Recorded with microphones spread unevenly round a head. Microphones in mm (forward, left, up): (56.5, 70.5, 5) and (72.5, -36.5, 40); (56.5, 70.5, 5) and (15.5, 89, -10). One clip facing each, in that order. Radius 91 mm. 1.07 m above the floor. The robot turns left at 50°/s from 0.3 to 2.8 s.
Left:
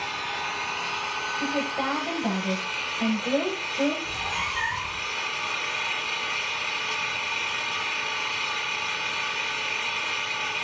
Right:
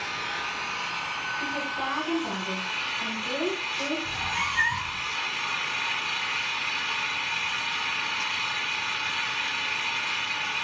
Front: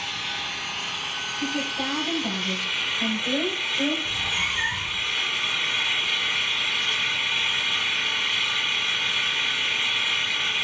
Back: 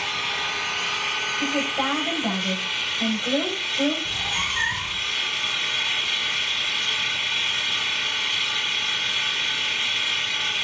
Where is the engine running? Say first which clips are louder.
Left 2 dB, back 4 dB; straight behind, 4 m; by 10.6 s 55° left, 4 m.